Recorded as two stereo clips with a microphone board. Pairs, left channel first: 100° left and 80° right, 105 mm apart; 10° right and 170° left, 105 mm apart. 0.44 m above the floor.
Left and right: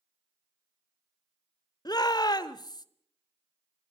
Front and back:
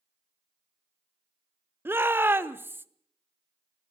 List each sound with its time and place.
1.9 s a shout: 110° left, 1.0 m